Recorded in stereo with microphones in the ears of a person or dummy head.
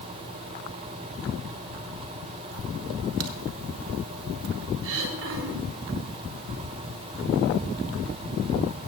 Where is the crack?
70° right (ahead or behind), 0.9 m.